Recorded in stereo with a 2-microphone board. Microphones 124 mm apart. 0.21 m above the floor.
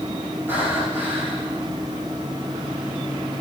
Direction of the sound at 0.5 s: 15° right (ahead or behind).